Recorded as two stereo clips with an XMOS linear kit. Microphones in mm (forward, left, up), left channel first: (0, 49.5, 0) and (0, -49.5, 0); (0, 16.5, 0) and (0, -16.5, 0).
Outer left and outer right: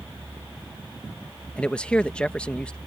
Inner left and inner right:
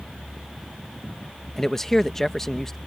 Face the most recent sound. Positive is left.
turn(degrees=10)  # may be behind; listen again after turning